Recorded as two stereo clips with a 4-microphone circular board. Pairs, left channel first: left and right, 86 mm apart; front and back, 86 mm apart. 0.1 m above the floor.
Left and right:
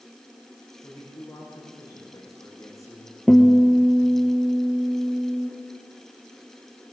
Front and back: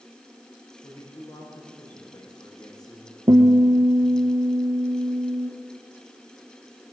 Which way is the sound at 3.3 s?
175° left.